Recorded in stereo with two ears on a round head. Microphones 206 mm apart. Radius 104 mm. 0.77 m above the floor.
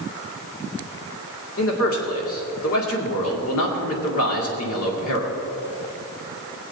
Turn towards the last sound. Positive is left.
turn(degrees=70)  # may be behind; listen again after turning